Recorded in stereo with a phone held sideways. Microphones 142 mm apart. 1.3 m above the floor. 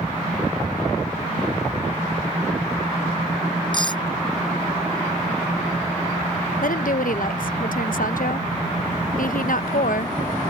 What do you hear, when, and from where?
3.7 s cutlery clinking: 30° left (ahead or behind)
6.6 s a woman speaking: 75° left (ahead or behind)